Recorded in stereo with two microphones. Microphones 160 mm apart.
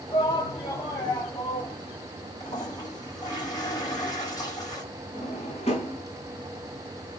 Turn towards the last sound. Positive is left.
turn(degrees=40)  # may be behind; listen again after turning